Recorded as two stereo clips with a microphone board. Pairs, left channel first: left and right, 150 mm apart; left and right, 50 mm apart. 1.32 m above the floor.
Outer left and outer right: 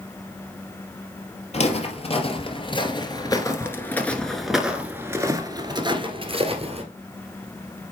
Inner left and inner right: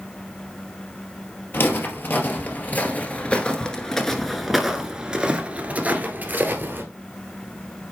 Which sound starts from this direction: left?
Footsteps, at 1.5 s.